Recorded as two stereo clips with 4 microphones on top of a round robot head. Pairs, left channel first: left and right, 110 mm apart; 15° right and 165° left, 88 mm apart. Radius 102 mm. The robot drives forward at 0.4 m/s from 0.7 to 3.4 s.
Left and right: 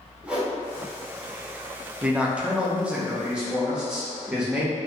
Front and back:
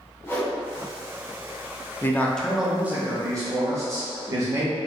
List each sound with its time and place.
0.2 s a whoosh: 20° right, 0.9 m
2.0 s a man speaking: 25° right, 0.5 m; by 4.8 s 170° right, 0.6 m